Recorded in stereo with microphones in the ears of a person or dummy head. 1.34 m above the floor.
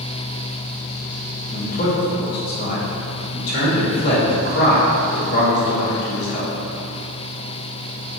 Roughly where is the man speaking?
Left.